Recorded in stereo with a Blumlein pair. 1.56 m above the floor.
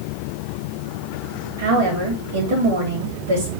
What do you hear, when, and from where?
1.6 s a woman speaking: 55° right, 2.5 m